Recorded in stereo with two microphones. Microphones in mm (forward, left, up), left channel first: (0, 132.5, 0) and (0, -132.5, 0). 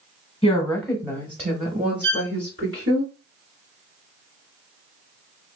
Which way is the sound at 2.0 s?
45° right (ahead or behind).